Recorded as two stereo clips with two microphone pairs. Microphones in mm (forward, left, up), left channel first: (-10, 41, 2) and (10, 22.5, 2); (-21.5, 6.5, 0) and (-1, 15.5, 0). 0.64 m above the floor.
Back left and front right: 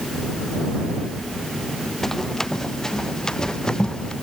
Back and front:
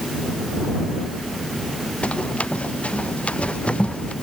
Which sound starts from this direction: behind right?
Running footsteps, at 2.0 s.